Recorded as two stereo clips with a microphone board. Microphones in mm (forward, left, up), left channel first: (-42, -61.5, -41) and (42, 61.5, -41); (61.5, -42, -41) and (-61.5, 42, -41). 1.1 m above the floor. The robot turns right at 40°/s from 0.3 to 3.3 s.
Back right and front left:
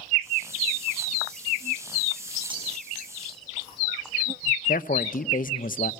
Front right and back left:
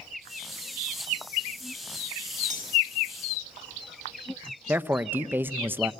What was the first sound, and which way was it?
Cutlery clinking, 110° left.